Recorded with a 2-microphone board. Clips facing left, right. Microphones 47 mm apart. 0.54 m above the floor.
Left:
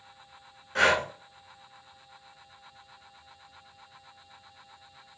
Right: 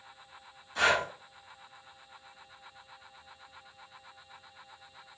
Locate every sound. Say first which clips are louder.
0.8 s breathing: left 3 dB; 65° left (ahead or behind), 0.9 m